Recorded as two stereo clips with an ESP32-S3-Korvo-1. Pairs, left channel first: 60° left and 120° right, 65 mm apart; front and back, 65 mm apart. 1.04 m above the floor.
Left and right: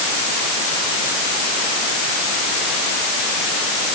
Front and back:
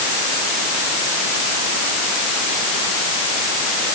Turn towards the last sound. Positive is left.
No sound to turn to.